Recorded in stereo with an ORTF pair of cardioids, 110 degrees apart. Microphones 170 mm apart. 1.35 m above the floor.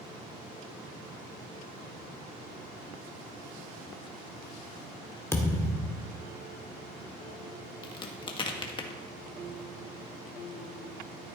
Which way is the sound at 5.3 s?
15° left.